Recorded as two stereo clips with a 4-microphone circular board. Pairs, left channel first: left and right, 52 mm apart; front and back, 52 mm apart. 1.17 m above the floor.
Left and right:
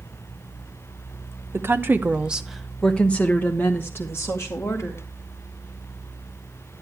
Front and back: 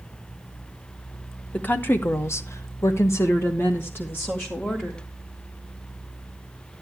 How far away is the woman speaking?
About 1.1 m.